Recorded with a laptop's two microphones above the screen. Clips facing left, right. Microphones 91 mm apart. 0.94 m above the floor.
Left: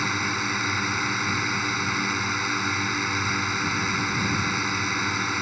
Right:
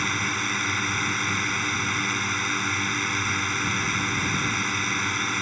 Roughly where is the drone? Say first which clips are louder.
Left 1 dB; centre.